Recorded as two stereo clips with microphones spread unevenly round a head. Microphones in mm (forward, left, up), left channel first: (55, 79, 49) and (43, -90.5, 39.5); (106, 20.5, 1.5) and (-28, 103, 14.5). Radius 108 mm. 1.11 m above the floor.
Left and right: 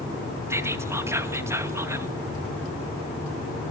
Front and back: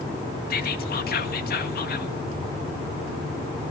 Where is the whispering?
20° right, 2.0 m.